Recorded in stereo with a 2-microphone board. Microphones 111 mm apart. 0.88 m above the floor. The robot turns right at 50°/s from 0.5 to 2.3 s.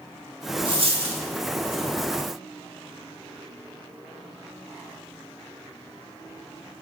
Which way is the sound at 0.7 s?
45° right (ahead or behind).